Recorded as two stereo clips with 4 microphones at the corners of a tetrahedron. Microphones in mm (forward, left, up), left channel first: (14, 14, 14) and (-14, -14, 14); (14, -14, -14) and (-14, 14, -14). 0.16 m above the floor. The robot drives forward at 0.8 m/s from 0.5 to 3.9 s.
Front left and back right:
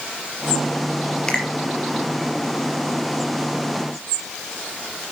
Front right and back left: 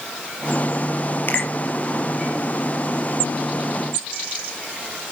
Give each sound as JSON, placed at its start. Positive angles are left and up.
{"t": 1.3, "sound": "a finger snap", "azimuth_deg": -20, "distance_m": 3.5}